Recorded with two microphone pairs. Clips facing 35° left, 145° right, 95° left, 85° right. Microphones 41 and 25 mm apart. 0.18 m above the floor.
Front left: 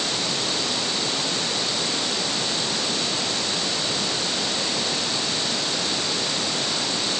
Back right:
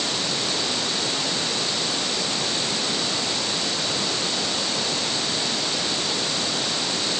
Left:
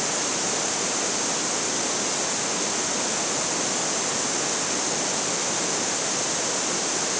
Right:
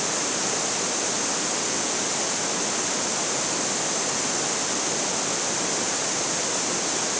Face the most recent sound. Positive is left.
No sound to turn to.